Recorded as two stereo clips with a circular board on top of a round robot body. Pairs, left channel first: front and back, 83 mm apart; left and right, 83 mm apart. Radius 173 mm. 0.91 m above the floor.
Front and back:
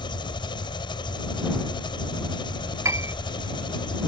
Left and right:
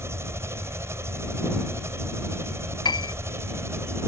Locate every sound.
0.0 s an engine running: 30° right
2.9 s a piano: 125° left